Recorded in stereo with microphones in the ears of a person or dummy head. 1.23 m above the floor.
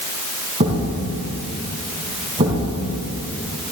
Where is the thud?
25° right (ahead or behind), 3 m.